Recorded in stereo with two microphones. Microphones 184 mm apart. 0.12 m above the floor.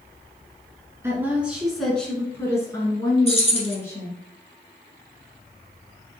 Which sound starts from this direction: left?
Keys jangling, at 3.3 s.